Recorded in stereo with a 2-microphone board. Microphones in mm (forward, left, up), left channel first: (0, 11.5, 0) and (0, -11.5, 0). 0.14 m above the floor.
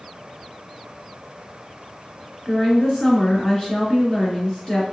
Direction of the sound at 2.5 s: 30° left (ahead or behind).